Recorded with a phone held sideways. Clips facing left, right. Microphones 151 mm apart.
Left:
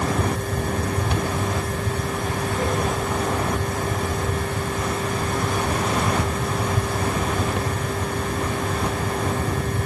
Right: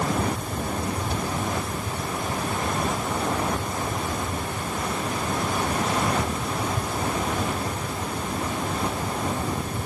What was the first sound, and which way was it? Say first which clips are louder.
A fan: left 2 dB; 80° left.